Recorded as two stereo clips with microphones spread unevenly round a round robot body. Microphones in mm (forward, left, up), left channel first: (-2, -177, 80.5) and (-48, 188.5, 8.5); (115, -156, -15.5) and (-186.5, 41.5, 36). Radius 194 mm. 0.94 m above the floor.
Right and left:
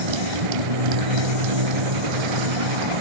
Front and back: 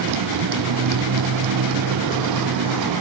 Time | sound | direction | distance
0.0 | a motorcycle | 100° left | ?